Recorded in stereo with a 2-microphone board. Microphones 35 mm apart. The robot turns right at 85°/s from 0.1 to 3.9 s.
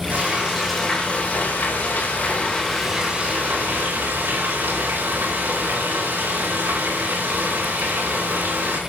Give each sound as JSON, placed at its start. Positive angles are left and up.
{"t": 0.1, "sound": "frying", "azimuth_deg": -50, "distance_m": 5.0}